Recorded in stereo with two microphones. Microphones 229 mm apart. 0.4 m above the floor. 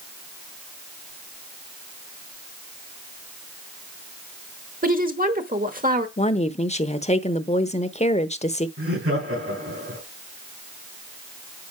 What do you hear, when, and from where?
4.8 s a woman speaking: 40° right (ahead or behind), 1.1 m
6.2 s a woman speaking: 30° left (ahead or behind), 0.8 m
8.8 s laughter: 70° right (ahead or behind), 3.5 m